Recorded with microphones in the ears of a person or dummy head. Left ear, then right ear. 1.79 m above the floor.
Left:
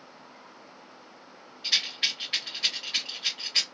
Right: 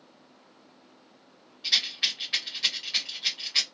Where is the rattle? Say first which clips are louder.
Right 1 dB; 5° left (ahead or behind), 1.3 m.